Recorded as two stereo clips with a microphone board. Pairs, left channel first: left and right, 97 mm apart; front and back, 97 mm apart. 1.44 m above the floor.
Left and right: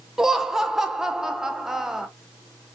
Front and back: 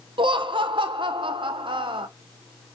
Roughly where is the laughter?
Behind.